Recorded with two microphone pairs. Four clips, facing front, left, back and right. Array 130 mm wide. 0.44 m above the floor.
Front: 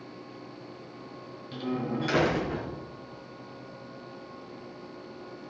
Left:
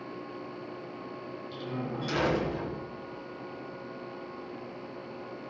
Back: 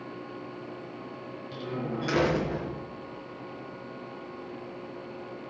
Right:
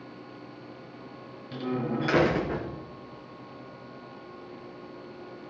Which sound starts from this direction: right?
A door slam, at 1.5 s.